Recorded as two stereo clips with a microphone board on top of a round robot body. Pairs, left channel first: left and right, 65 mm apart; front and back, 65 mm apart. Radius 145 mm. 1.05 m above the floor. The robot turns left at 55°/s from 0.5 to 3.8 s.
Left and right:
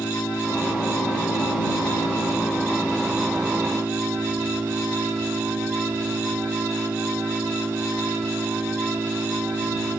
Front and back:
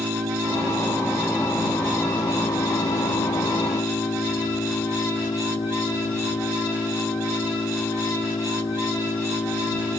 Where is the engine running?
150° left; by 10.0 s 30° right.